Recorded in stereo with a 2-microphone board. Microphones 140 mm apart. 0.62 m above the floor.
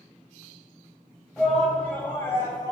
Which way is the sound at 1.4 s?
Centre (ahead or behind).